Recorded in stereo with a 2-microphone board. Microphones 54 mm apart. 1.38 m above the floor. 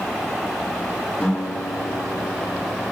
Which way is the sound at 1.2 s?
25° left (ahead or behind).